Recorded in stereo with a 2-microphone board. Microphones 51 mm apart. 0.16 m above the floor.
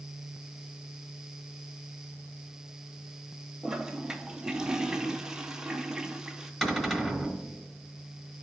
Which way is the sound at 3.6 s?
15° right (ahead or behind).